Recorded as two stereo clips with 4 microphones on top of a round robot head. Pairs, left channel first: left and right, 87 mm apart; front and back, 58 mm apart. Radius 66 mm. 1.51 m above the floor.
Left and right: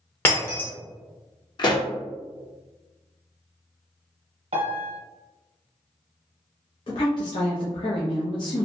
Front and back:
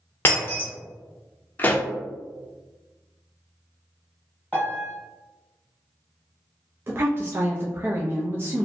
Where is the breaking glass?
35° left, 0.7 m.